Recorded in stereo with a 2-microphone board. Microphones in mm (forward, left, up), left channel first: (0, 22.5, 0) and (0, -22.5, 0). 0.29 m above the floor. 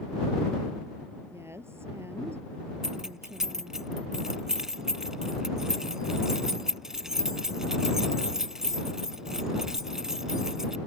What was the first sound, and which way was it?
A woman speaking, 75° right (ahead or behind).